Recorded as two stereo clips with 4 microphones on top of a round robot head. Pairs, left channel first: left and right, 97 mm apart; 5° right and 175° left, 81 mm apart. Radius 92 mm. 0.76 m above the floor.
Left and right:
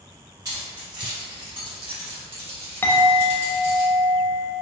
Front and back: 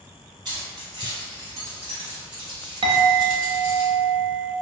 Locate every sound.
0.5 s keys jangling: 140° right, 1.8 m; by 3.8 s 70° right, 1.5 m
2.8 s a clink: 160° left, 0.5 m